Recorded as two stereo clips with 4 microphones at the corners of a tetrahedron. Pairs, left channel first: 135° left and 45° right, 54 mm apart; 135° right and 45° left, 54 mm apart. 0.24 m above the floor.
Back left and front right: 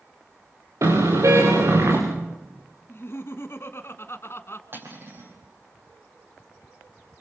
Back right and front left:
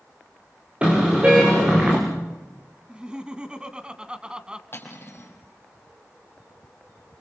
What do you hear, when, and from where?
0.8 s a car horn: 25° right, 8.5 m
2.9 s laughter: 115° left, 1.7 m
4.7 s cutlery clinking: 85° right, 4.5 m